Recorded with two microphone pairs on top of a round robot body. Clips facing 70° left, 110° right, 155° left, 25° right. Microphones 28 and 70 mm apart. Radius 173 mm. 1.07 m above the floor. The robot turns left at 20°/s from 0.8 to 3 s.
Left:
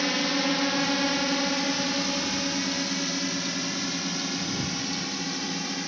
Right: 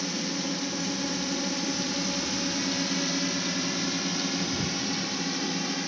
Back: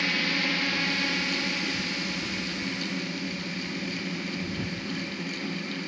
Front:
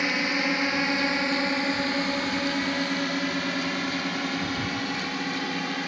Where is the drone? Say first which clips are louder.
Left 6 dB, front 3 dB; 35° left; by 5.9 s 15° right.